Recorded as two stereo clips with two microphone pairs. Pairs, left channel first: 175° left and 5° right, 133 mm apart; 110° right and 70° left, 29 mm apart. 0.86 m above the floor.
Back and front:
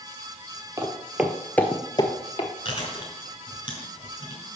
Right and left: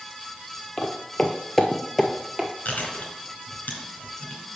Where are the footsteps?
65° right, 1.1 m; by 2.5 s 150° left, 1.2 m.